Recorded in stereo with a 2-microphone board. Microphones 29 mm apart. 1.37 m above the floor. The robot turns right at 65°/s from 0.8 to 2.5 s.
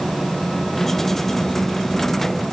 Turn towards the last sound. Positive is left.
No sound to turn to.